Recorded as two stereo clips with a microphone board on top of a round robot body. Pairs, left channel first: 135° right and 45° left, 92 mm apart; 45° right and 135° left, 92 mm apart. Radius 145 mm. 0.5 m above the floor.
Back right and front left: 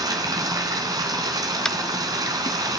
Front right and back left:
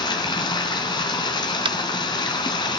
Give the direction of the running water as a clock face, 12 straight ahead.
12 o'clock.